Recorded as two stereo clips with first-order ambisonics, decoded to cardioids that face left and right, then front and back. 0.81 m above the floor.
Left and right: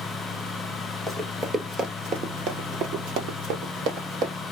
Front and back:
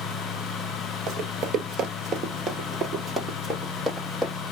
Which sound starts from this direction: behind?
Running footsteps, at 1.1 s.